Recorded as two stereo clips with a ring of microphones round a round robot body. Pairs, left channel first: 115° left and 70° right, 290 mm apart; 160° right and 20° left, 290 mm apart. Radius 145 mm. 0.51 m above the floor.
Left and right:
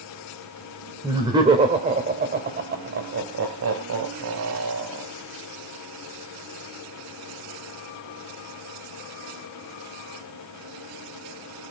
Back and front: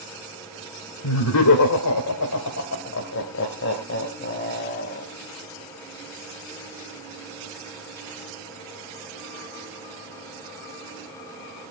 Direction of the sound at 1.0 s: 145° right.